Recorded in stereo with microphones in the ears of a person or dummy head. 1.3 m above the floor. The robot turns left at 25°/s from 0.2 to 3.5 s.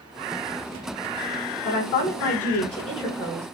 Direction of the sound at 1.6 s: 60° left.